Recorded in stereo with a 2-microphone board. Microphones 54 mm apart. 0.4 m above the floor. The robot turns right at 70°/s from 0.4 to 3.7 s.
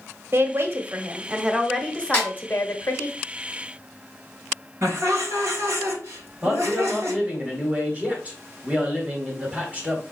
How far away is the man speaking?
About 1.6 m.